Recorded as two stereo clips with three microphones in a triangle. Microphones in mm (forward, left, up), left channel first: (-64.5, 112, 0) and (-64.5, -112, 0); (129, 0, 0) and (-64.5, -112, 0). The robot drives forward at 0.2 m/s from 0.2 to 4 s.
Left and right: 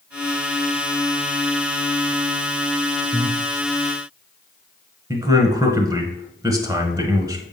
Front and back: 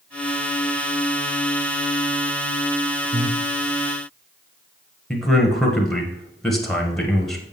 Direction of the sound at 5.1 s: 55° right.